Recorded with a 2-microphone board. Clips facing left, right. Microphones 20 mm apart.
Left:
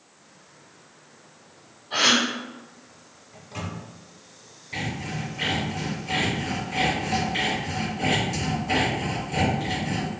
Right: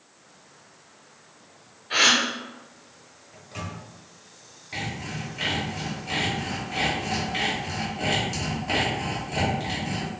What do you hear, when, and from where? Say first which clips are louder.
1.9 s a gasp: right 1 dB; 80° right, 1.1 m
3.3 s a microwave: left 1 dB; 5° right (ahead or behind), 0.8 m
4.7 s sawing: left 2 dB; 25° right (ahead or behind), 2.0 m